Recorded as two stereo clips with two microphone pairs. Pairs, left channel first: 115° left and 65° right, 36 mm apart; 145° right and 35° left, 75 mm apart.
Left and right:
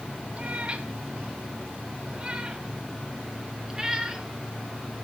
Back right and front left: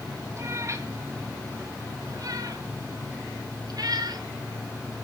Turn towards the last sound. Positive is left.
turn(degrees=15)